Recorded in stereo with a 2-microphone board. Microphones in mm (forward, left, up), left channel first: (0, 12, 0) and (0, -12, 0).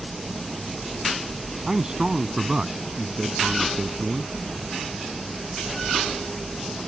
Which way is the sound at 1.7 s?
25° right (ahead or behind).